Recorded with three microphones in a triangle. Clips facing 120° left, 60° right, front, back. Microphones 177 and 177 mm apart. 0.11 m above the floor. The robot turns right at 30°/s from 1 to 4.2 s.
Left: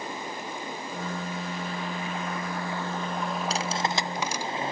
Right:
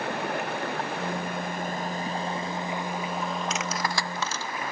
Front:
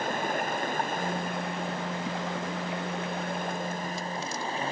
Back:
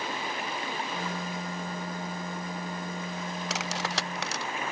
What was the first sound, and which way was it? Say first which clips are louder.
Running water: right 6 dB, front 5 dB; 40° right.